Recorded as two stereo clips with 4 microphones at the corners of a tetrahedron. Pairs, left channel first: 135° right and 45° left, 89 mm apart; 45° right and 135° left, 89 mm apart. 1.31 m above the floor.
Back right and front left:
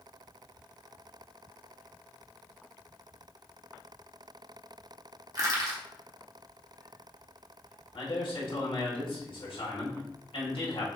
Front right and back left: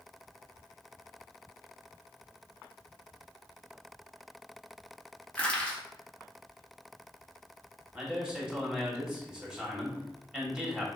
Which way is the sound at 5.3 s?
25° left.